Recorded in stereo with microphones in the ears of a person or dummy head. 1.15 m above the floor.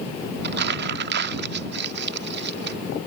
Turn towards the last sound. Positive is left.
turn(degrees=-60)  # may be behind; listen again after turning